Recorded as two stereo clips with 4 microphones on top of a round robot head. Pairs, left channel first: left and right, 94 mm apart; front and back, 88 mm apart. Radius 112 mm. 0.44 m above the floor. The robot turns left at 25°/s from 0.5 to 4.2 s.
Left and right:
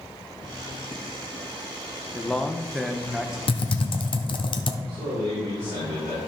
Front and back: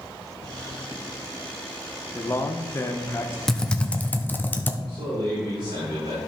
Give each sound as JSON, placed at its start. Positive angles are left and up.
{"t": 2.1, "sound": "a man speaking", "azimuth_deg": 20, "distance_m": 1.0}
{"t": 3.5, "sound": "typing on a keyboard", "azimuth_deg": 90, "distance_m": 1.0}
{"t": 4.9, "sound": "a man speaking", "azimuth_deg": -145, "distance_m": 4.0}